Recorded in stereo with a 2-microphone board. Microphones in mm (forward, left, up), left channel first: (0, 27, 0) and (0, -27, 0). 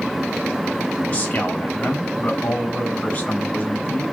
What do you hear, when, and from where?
1.1 s a man speaking: 25° left (ahead or behind), 3.5 m